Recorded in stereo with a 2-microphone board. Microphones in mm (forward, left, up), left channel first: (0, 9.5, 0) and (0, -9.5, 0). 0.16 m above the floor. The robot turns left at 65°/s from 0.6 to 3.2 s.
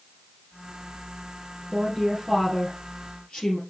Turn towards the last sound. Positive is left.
turn(degrees=115)